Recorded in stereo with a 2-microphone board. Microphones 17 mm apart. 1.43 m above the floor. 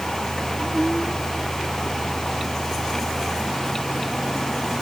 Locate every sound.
Only background noise.